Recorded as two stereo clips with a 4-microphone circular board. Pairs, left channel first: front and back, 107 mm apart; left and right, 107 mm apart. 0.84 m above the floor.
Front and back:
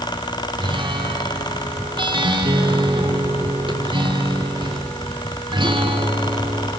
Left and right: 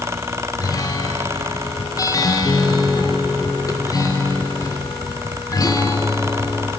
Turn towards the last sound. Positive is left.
turn(degrees=145)